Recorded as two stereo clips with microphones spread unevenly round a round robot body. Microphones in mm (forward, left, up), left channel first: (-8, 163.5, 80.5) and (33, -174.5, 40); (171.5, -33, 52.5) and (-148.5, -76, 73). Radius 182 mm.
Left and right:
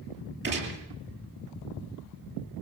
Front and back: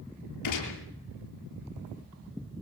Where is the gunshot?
25° right, 7.5 m.